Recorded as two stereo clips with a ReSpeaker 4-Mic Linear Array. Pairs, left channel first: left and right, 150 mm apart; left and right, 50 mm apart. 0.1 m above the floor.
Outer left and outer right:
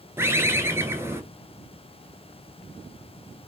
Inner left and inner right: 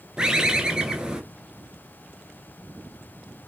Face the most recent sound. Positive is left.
turn(degrees=-15)  # may be behind; listen again after turning